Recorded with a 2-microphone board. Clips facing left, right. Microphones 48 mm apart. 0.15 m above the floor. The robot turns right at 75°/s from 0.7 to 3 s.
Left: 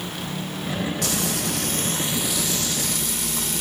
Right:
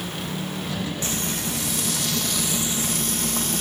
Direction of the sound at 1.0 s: 75° left.